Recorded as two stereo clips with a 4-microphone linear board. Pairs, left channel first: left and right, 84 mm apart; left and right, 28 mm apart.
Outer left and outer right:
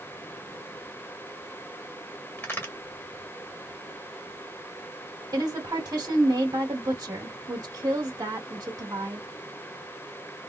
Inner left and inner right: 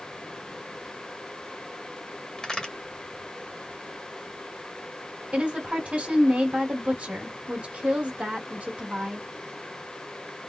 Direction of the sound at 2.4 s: 25° left (ahead or behind).